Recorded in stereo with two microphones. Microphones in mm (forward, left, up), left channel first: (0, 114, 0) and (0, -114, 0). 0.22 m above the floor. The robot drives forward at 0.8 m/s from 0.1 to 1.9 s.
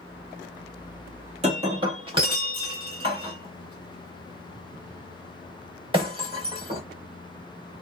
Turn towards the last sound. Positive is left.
turn(degrees=-20)  # may be behind; listen again after turning